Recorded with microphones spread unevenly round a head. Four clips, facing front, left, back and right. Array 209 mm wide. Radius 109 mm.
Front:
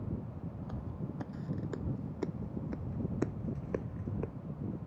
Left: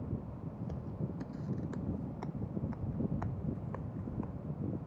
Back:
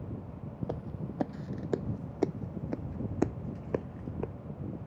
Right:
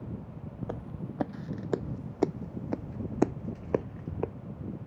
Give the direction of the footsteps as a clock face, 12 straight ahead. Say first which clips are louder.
Right 4 dB, back 7 dB; 5 o'clock.